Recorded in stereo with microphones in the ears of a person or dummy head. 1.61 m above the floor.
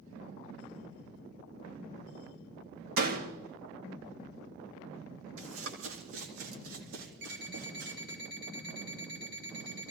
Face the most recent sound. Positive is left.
turn(degrees=-80)